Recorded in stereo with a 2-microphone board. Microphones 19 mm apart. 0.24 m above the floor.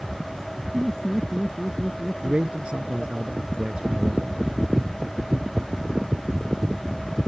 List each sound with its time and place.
0.7 s laughter: 5° left (ahead or behind); by 3.2 s 10° left (ahead or behind)
2.2 s a man speaking: 55° right (ahead or behind)